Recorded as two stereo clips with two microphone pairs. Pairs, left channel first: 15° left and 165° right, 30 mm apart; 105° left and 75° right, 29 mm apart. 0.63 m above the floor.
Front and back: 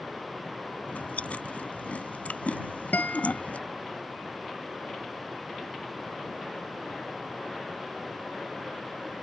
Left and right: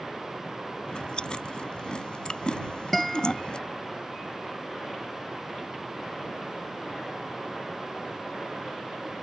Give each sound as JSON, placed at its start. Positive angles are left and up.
{"t": 0.9, "sound": "chewing", "azimuth_deg": 50}
{"t": 2.9, "sound": "a guitar", "azimuth_deg": 25}